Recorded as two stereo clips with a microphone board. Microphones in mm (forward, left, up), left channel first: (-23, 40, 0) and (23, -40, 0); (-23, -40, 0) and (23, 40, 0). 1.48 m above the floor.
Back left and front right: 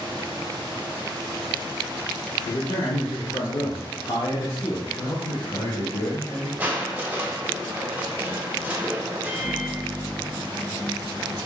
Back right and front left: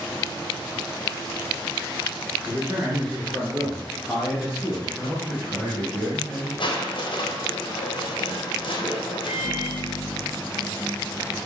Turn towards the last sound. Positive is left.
turn(degrees=-150)